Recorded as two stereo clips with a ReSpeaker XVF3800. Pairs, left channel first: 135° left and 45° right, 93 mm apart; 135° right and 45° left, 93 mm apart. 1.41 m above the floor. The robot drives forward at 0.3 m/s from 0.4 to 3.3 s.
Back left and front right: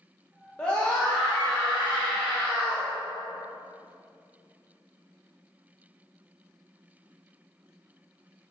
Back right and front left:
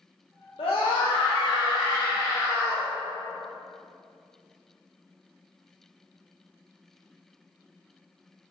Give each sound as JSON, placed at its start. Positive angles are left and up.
{"t": 0.6, "sound": "a scream", "azimuth_deg": -145, "distance_m": 1.1}